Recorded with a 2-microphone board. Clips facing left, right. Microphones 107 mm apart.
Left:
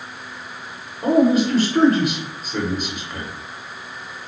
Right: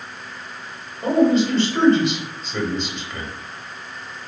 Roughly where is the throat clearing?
No throat clearing in this recording.